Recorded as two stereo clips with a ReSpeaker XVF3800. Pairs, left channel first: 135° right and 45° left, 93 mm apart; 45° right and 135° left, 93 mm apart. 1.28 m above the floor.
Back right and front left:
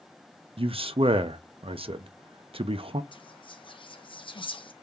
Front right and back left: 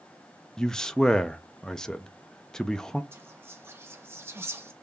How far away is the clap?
I don't hear a clap.